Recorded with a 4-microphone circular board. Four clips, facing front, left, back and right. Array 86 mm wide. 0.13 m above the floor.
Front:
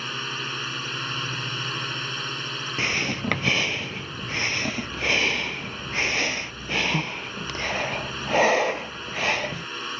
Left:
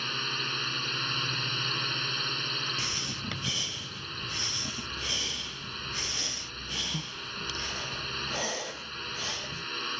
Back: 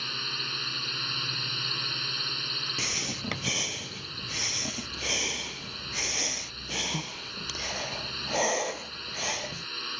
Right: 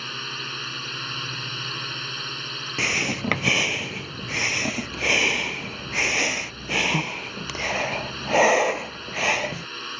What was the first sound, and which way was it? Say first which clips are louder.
A drone: right 1 dB, front 6 dB; 5° right.